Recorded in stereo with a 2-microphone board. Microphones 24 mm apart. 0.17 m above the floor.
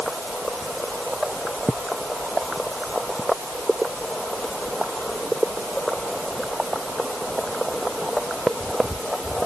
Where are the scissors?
No scissors in this recording.